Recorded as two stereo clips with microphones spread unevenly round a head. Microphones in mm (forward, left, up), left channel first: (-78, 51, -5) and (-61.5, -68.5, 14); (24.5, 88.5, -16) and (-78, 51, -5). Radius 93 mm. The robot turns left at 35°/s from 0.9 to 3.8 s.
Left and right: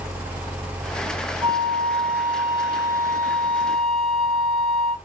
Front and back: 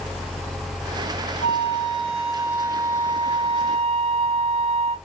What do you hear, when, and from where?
1.4 s a flute: 5° right, 1.7 m; by 5.0 s 90° right, 1.7 m